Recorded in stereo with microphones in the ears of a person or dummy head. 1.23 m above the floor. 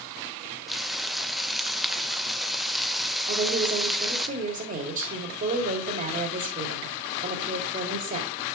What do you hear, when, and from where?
0.7 s frying: centre (ahead or behind), 0.7 m
3.3 s a woman speaking: 40° right (ahead or behind), 3.5 m